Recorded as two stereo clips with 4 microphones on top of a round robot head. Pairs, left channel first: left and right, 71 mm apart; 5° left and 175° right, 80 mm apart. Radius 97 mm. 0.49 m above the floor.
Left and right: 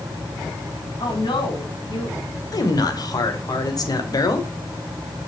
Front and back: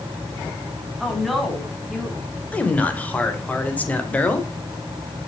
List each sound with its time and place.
1.0 s a woman speaking: 90° left, 3.5 m; by 2.2 s 95° left, 4.5 m
2.5 s a man speaking: 75° left, 2.5 m